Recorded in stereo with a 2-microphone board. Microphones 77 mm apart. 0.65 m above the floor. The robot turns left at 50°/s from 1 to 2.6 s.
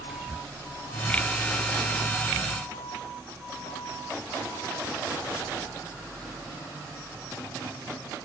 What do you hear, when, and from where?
0.1 s whispering: 10° right (ahead or behind)